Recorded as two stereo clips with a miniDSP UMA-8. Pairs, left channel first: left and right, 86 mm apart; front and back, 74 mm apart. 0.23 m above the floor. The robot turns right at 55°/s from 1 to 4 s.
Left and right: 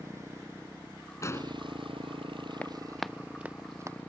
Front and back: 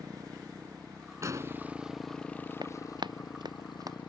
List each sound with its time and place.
0.0 s a motorcycle: 145° right; by 4.1 s 20° left
1.2 s an explosion: 140° left; by 1.6 s 155° left
2.6 s running footsteps: 165° left; by 4.0 s 140° right